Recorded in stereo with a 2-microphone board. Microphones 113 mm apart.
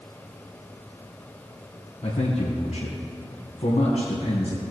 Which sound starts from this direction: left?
A man speaking, at 2.0 s.